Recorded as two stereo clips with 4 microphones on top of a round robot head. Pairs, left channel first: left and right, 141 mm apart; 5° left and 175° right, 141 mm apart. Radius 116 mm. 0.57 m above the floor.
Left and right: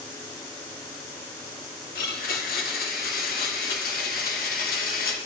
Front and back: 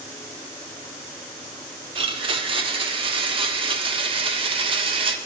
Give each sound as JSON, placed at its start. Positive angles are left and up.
{"t": 1.9, "sound": "a blender", "azimuth_deg": 135, "distance_m": 0.5}